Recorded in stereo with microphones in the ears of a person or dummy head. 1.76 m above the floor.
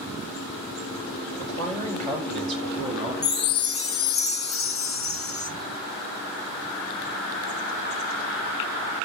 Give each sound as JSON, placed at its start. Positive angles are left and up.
{"t": 1.4, "sound": "a man speaking", "side_deg": 20, "distance_m": 4.0}
{"t": 3.2, "sound": "a chime", "side_deg": 45, "distance_m": 0.6}